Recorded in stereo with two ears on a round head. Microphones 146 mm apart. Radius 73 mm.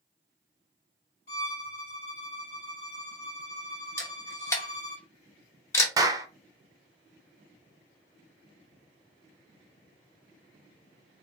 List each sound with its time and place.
1.3 s a violin: 65° left (ahead or behind), 2.5 m
4.0 s a camera shutter: 15° left (ahead or behind), 1.3 m
6.0 s a clap: 20° right (ahead or behind), 0.7 m